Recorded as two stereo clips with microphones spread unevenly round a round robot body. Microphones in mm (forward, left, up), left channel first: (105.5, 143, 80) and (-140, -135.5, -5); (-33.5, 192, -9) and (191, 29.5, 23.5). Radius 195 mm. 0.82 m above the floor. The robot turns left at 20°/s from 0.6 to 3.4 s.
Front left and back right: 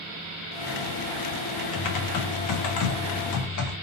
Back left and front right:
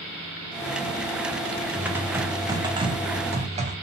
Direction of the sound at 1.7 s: 60° left.